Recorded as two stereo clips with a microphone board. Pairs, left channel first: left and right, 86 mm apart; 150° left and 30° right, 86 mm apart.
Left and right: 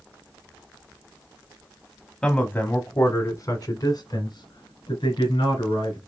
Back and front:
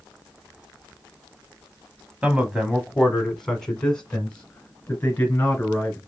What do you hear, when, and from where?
2.2 s a man speaking: 20° left, 1.0 m; by 6.0 s 80° left, 2.5 m